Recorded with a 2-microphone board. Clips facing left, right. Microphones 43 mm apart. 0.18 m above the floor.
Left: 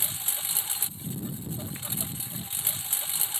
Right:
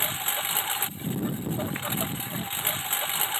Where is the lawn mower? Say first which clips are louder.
Right 9 dB; 40° right (ahead or behind).